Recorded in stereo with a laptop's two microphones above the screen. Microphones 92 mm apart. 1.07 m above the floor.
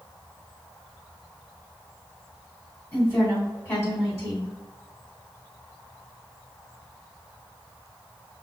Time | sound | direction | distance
2.9 | a woman speaking | 30° left (ahead or behind) | 2 m